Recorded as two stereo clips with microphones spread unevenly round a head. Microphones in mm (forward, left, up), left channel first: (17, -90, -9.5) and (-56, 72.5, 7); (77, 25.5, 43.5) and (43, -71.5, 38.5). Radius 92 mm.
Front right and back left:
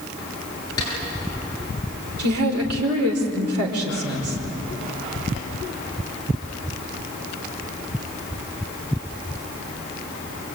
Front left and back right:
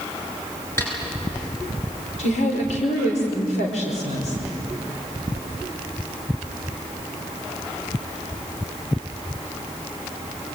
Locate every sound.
0.8 s a snare drum: 10° left, 9.5 m
2.2 s a woman speaking: 110° left, 5 m